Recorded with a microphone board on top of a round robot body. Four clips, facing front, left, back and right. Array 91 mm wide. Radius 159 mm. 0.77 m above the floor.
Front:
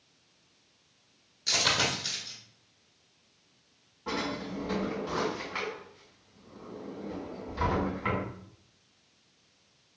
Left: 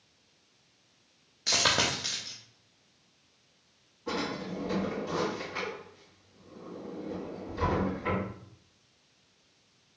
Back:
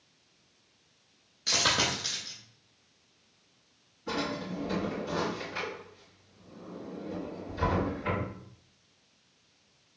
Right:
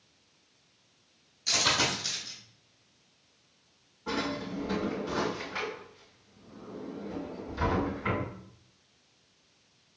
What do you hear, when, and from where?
1.5 s a dropped coin: 100° left, 0.6 m
4.1 s a drawer: 10° right, 2.5 m